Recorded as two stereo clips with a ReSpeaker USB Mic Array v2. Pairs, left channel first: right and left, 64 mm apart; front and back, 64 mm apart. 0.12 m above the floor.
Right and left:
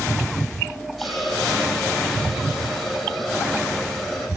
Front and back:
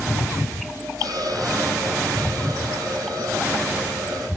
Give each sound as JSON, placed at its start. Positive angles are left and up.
{"t": 1.0, "sound": "a hiss", "azimuth_deg": 180, "distance_m": 4.5}